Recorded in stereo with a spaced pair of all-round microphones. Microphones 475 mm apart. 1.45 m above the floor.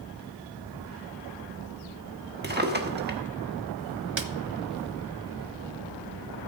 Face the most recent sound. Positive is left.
turn(degrees=-65)  # may be behind; listen again after turning